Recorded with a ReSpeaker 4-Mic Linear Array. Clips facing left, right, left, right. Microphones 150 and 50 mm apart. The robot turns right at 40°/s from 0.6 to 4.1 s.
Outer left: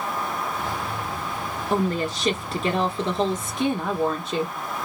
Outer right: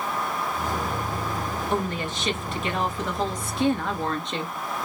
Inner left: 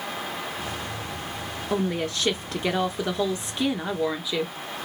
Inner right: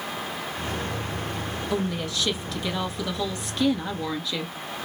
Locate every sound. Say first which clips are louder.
1.7 s a woman speaking: outer left 6 dB, inner left 3 dB; 70° left, 1.5 m; by 4.5 s 165° left, 1.5 m